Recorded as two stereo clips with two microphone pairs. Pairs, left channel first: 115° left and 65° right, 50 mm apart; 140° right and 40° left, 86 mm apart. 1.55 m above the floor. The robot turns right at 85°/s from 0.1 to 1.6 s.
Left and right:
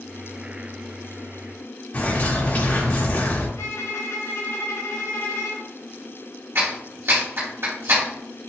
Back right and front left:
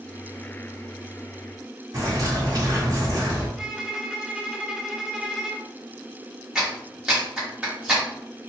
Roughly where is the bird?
Left.